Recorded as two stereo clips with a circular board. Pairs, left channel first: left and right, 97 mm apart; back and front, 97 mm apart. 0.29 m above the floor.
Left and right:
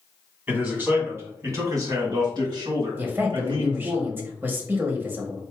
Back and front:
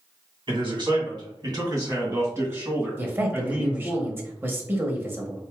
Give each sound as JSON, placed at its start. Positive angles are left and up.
{"t": 0.5, "sound": "a man speaking", "azimuth_deg": -20, "distance_m": 2.0}
{"t": 3.0, "sound": "a man speaking", "azimuth_deg": -45, "distance_m": 1.0}